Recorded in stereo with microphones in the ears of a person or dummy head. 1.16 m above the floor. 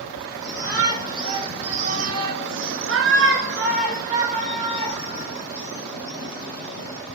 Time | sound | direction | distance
0.4 | a shout | 10° right (ahead or behind) | 1.3 m